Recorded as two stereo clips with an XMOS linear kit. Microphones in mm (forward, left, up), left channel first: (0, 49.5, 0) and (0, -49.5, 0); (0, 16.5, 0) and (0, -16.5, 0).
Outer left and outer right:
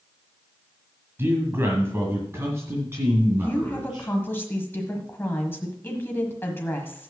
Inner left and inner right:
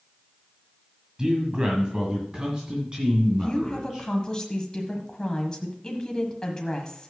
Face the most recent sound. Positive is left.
turn(degrees=25)  # may be behind; listen again after turning